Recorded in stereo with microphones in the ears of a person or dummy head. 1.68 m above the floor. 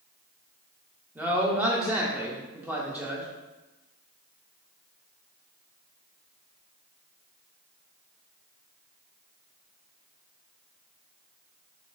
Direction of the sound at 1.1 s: 5° right (ahead or behind).